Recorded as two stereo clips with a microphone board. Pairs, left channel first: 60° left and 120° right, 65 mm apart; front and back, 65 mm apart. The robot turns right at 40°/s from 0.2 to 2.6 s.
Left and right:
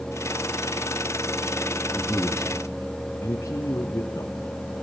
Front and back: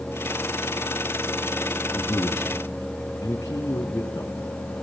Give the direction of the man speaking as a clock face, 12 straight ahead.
12 o'clock.